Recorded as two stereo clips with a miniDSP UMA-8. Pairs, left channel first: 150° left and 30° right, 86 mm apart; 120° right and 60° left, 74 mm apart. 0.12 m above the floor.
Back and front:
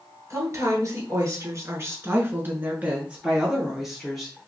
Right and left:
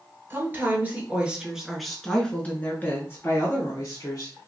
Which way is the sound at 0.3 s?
10° left.